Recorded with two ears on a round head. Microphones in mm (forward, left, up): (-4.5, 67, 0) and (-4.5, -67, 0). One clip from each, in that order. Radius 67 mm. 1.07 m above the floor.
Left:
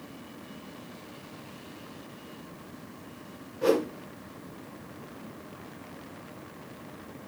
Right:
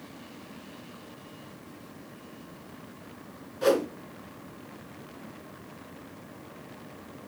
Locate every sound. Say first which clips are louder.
3.6 s a whoosh: right 1 dB; 60° right (ahead or behind), 2.5 m